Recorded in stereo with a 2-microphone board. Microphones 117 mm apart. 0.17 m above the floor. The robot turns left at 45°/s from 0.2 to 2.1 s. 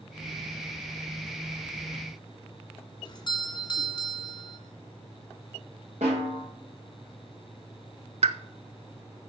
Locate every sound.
3.0 s a doorbell: 40° left (ahead or behind), 2 m
6.0 s a snare drum: 85° right, 5 m
8.2 s a pop: 65° right (ahead or behind), 0.6 m